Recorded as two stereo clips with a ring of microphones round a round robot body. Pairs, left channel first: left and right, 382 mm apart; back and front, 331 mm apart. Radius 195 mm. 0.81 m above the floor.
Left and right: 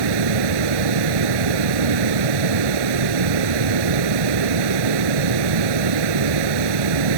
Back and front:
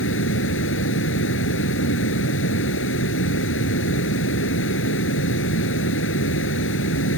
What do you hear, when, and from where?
0.0 s running water: 120° right